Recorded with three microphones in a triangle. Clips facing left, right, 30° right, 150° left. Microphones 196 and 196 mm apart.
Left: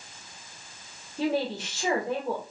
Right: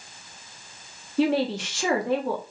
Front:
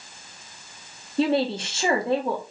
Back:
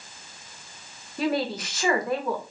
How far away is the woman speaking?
About 1.3 m.